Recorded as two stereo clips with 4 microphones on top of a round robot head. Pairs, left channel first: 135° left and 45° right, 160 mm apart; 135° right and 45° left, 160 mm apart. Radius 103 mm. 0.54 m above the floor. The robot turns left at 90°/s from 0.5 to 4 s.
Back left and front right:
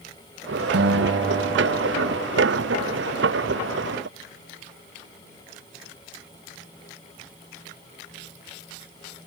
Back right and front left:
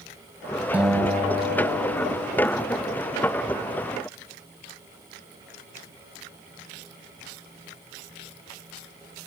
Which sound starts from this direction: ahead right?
A guitar, at 0.7 s.